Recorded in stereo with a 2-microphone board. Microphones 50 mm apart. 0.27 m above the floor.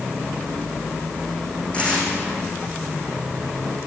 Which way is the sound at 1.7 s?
20° left (ahead or behind).